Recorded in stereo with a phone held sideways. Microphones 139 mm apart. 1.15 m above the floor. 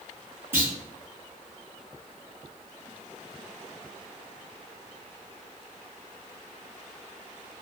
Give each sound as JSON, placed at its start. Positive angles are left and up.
{"t": 0.5, "sound": "a clunk", "side_deg": -15, "distance_m": 0.9}